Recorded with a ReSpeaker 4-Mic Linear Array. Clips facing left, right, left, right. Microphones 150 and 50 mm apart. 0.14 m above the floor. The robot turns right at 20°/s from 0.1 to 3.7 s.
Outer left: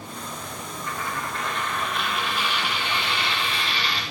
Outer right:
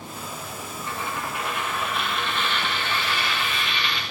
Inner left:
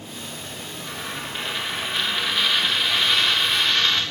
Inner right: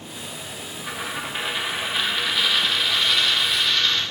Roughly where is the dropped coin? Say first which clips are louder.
Even, inner right 3 dB; ahead right.